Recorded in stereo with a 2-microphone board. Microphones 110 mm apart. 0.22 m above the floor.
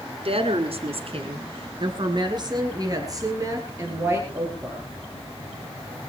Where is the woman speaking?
60° right (ahead or behind), 2.5 m; by 5.0 s 20° right (ahead or behind), 6 m.